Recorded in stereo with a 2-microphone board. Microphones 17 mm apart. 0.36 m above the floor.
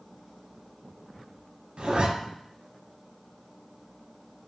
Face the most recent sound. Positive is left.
turn(degrees=-70)  # may be behind; listen again after turning